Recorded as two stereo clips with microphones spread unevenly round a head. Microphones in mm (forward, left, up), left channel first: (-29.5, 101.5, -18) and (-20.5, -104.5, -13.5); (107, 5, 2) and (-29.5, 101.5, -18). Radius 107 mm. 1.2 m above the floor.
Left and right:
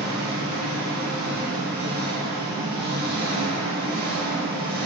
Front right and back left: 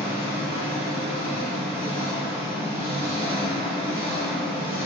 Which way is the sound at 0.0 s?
100° right.